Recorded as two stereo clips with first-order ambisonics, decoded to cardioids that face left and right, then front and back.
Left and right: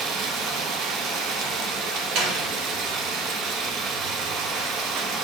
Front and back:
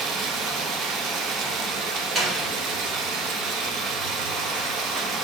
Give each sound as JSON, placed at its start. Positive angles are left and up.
{"t": 0.0, "sound": "running water", "azimuth_deg": -130, "distance_m": 1.1}
{"t": 2.1, "sound": "a door slam", "azimuth_deg": -110, "distance_m": 1.8}